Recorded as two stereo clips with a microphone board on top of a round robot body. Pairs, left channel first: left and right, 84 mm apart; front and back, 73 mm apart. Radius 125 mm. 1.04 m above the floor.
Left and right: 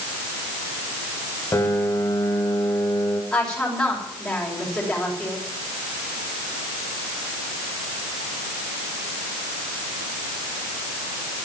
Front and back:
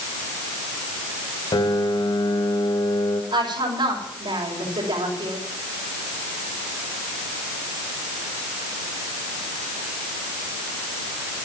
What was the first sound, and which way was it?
A piano, 25° left.